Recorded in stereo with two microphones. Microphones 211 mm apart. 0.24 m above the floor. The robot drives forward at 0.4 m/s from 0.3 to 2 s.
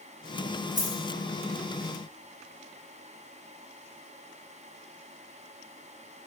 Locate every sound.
0.8 s a dropped coin: 35° right (ahead or behind), 1.1 m